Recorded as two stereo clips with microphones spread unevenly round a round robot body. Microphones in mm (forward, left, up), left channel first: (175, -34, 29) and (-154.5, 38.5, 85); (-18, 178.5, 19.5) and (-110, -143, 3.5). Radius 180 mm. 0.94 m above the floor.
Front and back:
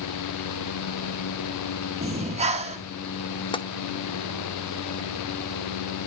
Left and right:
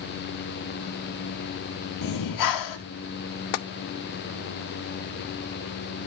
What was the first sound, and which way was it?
Breathing, 95° left.